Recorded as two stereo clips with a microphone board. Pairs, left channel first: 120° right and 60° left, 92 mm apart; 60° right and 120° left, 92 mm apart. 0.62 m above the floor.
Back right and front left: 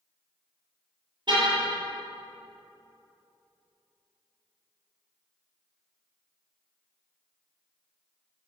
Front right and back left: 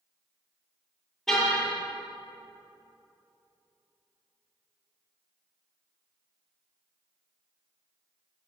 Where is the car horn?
25° left, 7.5 m.